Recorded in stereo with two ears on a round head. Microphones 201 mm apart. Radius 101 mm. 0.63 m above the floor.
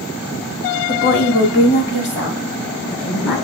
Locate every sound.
0.9 s a woman speaking: 40° left (ahead or behind), 1.0 m; by 3.4 s 55° left (ahead or behind), 4 m